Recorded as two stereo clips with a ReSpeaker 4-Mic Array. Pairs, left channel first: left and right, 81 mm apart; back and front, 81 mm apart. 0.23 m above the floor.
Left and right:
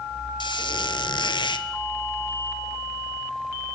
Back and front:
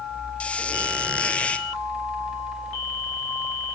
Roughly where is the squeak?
Left.